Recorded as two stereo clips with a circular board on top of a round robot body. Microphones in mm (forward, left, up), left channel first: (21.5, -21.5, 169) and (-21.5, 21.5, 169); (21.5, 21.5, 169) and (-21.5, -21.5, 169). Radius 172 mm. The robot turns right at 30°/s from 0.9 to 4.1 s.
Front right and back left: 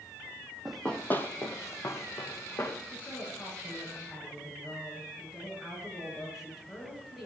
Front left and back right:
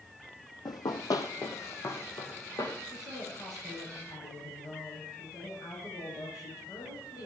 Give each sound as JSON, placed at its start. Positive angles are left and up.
{"t": 0.7, "sound": "running footsteps", "azimuth_deg": 50, "distance_m": 1.1}
{"t": 2.9, "sound": "a woman speaking", "azimuth_deg": 15, "distance_m": 8.5}